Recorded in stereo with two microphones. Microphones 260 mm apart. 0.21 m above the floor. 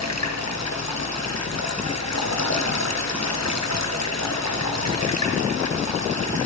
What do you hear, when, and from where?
0.0 s running water: 75° left (ahead or behind), 3.5 m